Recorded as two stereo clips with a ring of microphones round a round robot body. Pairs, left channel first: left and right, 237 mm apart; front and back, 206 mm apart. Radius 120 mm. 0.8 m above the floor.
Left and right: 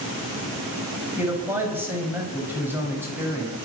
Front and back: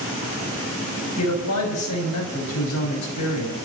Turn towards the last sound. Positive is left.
turn(degrees=-10)